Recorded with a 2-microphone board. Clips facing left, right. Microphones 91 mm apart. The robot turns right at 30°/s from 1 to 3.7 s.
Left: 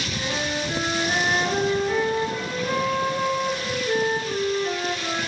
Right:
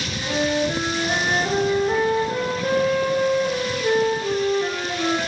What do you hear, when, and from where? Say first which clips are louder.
0.1 s a flute: right 7 dB; 175° left, 3.5 m; by 5.2 s 100° right, 3.5 m